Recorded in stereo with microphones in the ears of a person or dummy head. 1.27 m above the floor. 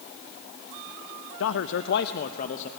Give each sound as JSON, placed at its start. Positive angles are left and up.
{"t": 1.4, "sound": "a man speaking", "side_deg": 75, "distance_m": 0.6}